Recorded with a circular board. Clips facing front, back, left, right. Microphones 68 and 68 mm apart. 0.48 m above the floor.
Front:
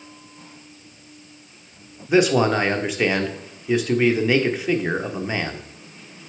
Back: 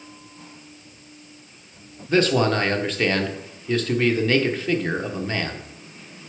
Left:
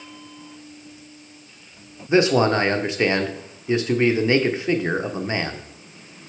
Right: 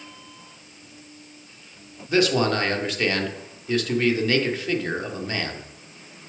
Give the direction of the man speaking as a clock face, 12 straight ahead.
10 o'clock.